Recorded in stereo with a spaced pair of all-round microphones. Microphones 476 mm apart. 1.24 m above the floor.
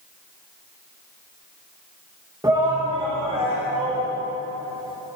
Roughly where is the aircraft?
No aircraft in this recording.